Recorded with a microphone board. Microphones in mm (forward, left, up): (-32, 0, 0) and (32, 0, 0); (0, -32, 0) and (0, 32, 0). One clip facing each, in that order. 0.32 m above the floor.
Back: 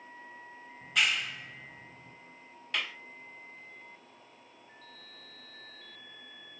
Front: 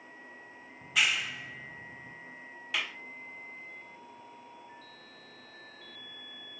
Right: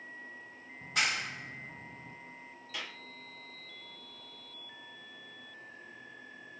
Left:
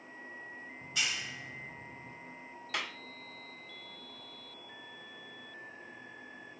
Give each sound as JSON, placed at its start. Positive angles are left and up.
{"t": 0.8, "sound": "a clap", "azimuth_deg": -90, "distance_m": 1.2}
{"t": 2.7, "sound": "a clap", "azimuth_deg": 85, "distance_m": 1.8}